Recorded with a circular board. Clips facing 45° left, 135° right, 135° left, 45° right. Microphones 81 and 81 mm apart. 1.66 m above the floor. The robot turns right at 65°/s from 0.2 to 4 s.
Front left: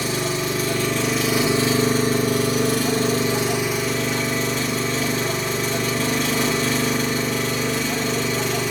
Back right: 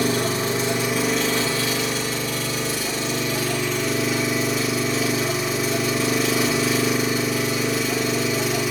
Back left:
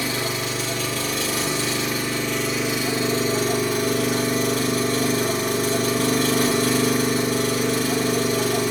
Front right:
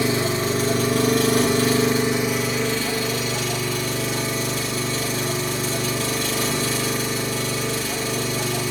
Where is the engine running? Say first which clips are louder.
Back right 2 dB, front right 4 dB; 105° right, 1.3 m; by 8.7 s 145° left, 1.3 m.